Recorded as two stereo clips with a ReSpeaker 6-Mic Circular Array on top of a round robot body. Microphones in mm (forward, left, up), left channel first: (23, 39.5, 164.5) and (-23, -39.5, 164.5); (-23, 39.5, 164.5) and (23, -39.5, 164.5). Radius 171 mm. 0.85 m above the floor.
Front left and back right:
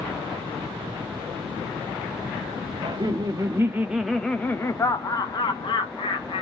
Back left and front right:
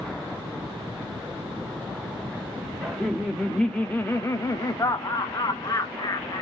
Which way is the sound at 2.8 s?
140° right.